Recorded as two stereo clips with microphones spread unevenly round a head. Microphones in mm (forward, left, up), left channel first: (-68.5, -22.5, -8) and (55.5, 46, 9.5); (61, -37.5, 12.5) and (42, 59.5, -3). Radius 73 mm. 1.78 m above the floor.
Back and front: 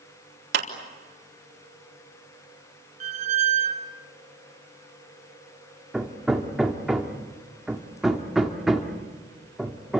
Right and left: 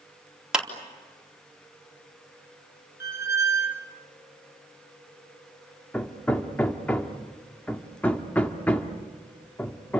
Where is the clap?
15° left, 4 m.